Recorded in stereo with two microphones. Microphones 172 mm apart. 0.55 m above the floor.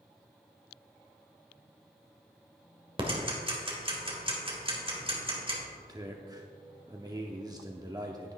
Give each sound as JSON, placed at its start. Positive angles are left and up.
{"t": 3.0, "sound": "ticking", "side_deg": -30, "distance_m": 1.6}
{"t": 5.8, "sound": "a man speaking", "side_deg": -20, "distance_m": 0.7}